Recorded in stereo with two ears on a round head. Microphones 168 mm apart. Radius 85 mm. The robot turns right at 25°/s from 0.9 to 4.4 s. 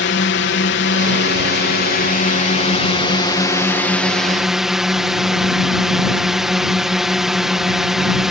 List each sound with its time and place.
0.0 s a drone: 95° left; by 8.3 s 175° right